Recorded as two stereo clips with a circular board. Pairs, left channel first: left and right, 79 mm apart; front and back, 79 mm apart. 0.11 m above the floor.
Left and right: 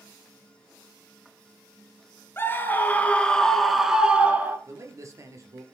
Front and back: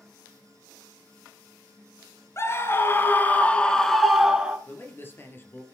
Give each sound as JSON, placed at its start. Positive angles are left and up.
{"t": 2.4, "sound": "a scream", "azimuth_deg": 40, "distance_m": 1.7}
{"t": 4.7, "sound": "a man speaking", "azimuth_deg": -55, "distance_m": 2.5}